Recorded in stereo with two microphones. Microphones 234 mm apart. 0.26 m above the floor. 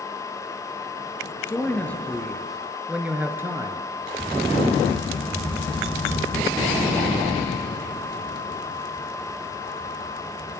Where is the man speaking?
10° left (ahead or behind), 3.5 m; by 3.9 s 15° right (ahead or behind), 3 m.